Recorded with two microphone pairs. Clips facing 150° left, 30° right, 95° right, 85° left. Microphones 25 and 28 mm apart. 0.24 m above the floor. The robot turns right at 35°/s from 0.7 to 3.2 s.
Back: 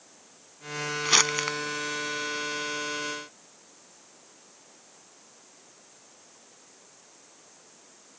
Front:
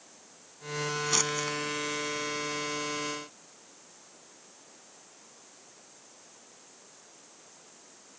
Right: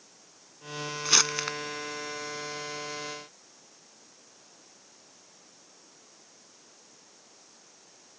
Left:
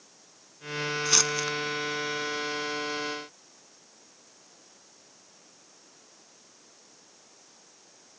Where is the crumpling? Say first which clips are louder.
Back 9 dB, right 2 dB; straight behind; by 1.6 s 160° right.